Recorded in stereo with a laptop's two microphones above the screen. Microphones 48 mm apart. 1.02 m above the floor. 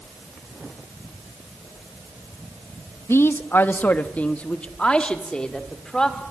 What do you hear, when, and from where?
3.1 s a man speaking: 70° left (ahead or behind), 0.9 m; by 6.2 s 15° left (ahead or behind), 3 m